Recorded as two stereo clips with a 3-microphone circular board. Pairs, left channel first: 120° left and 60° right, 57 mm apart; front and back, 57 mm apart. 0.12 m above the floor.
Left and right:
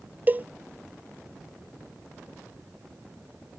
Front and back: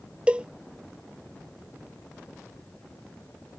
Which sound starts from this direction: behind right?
A cowbell, at 0.3 s.